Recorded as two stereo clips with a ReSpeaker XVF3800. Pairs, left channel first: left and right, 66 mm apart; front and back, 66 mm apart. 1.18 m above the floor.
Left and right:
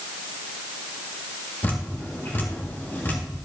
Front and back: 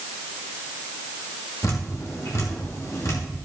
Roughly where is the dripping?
Ahead left.